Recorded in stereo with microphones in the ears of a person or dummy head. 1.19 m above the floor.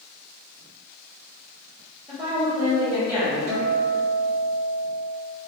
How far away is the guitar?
About 0.7 m.